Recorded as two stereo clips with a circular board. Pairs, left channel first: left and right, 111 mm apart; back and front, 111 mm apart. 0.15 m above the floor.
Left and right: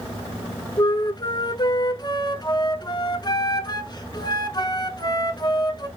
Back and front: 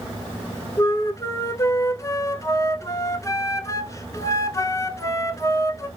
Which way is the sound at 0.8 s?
125° left.